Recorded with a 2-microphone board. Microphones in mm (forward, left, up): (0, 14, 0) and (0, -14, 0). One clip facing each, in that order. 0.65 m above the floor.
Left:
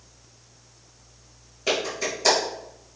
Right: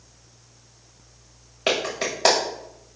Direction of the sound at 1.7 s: 55° right (ahead or behind).